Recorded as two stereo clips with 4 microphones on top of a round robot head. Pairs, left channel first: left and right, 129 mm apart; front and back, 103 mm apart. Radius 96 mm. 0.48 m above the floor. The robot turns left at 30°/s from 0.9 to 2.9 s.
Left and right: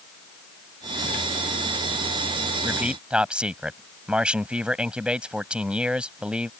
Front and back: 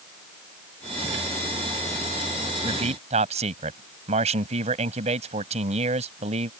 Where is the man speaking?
165° right; by 6.5 s 170° right.